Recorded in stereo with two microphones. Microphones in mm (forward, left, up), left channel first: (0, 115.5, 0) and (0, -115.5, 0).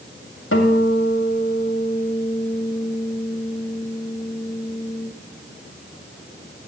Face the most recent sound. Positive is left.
turn(degrees=65)  # may be behind; listen again after turning